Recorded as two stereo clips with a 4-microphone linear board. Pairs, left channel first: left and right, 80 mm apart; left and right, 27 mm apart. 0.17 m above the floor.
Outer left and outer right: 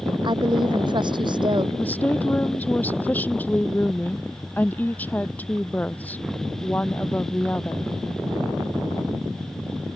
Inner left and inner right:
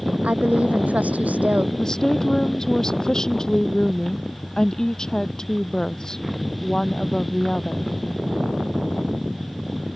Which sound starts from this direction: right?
A woman speaking, at 0.2 s.